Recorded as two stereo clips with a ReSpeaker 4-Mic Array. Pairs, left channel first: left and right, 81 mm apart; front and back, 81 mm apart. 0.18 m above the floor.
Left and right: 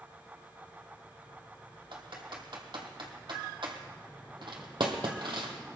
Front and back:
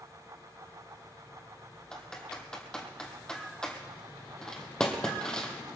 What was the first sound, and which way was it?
Typing on a keyboard, 80° right.